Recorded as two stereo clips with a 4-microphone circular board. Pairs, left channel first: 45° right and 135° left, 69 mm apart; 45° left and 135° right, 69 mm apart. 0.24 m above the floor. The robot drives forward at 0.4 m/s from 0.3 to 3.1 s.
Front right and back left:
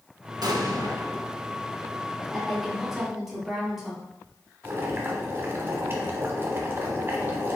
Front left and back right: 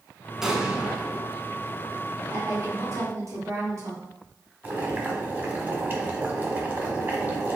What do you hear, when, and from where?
0.4 s an explosion: 140° left, 0.6 m; by 1.3 s 155° left, 0.9 m
2.3 s a woman speaking: 130° right, 1.9 m; by 4.0 s 140° right, 2 m
4.6 s boiling: 175° left, 1.1 m